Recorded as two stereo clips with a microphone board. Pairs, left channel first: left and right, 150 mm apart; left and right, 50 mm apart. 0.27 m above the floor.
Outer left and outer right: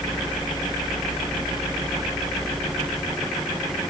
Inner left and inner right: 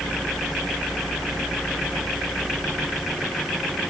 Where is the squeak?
No squeak in this recording.